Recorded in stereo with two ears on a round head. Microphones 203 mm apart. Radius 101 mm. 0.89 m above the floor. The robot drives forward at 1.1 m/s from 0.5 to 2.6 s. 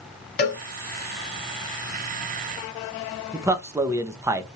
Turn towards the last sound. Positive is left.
turn(degrees=-10)  # may be behind; listen again after turning